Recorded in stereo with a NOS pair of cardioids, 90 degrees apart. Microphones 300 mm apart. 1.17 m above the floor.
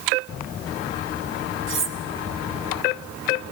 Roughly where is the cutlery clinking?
Ahead right.